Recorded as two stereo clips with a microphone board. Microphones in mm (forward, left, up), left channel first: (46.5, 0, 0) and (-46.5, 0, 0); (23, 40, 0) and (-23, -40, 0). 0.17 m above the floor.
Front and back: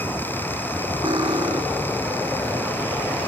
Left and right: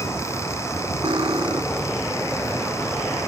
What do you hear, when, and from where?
1.0 s cutlery clinking: 150° right